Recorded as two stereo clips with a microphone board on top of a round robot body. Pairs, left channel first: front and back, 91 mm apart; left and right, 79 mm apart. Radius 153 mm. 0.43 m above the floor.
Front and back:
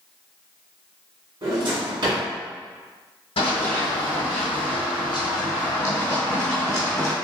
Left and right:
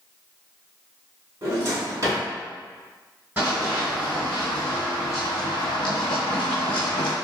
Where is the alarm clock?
No alarm clock in this recording.